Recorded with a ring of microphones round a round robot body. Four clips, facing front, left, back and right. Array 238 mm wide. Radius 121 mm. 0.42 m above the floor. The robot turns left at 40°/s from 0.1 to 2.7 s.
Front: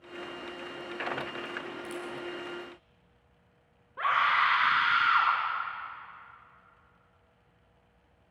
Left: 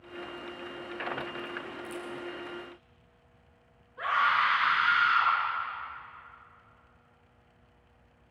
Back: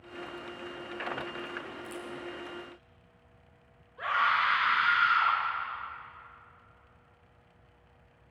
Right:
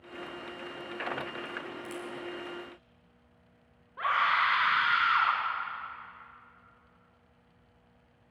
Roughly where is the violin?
I don't hear a violin.